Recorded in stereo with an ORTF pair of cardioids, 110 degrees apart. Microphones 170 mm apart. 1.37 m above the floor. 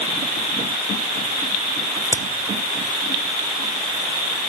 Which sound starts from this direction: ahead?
A crack, at 2.0 s.